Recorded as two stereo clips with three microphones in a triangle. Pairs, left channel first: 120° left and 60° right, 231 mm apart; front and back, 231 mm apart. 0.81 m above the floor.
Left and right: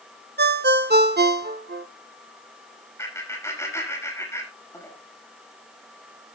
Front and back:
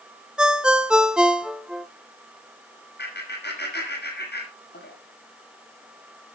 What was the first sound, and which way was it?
A ringtone, 95° right.